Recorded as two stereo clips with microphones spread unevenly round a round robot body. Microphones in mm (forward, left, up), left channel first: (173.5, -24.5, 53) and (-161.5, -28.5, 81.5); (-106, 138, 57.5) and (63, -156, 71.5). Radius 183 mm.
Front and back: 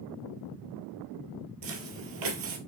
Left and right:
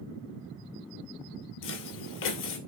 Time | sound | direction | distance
1.6 | footsteps | 170° left | 1.6 m